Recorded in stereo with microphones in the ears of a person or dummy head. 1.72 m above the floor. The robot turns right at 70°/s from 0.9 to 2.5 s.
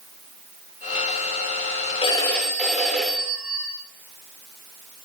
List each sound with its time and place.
2.0 s a phone ringing: 150° left, 3.5 m; by 3.7 s 175° right, 3.5 m